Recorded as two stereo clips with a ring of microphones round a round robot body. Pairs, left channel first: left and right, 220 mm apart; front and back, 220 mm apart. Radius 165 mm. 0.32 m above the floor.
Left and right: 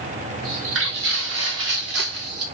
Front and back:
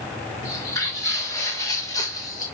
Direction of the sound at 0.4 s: 80° right.